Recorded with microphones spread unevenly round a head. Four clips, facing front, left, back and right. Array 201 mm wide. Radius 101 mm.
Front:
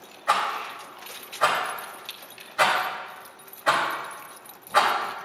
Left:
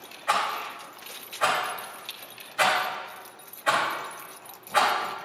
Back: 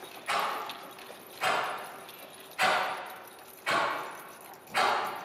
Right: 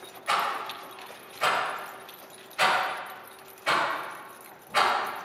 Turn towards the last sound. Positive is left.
turn(degrees=15)